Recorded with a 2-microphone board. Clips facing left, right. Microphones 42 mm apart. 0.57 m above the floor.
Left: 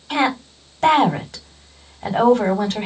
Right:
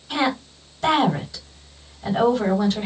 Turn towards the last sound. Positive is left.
turn(degrees=50)  # may be behind; listen again after turning